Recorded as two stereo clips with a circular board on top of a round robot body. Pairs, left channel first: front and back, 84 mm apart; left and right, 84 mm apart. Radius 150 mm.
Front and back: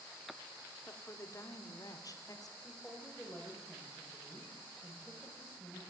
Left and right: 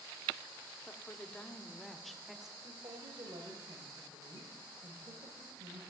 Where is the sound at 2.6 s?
90° right, 2.5 m.